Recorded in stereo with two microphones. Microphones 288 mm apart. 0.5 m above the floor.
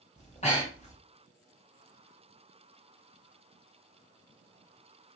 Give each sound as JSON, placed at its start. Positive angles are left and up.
{"t": 0.2, "sound": "breathing", "side_deg": 25, "distance_m": 1.6}